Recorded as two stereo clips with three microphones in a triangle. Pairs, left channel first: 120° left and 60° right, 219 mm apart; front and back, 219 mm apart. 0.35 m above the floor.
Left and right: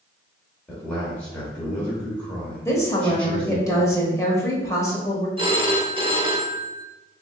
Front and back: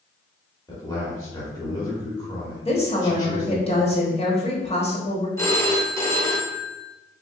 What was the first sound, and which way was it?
A man speaking, 50° left.